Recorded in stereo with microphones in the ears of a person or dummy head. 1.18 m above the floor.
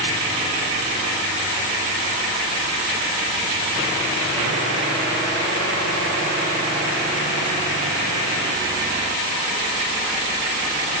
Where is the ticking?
I don't hear ticking.